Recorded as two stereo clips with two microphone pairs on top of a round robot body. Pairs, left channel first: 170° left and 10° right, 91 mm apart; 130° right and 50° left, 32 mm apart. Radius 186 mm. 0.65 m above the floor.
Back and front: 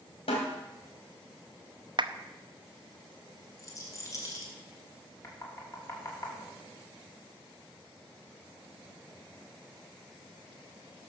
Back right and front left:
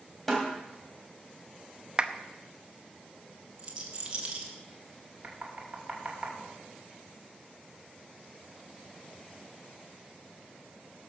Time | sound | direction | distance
0.3 | a snare drum | 150° left | 3 m
2.0 | a clap | 5° right | 1.0 m
3.6 | a rattle | 115° left | 2 m
5.2 | knocking | 110° left | 3 m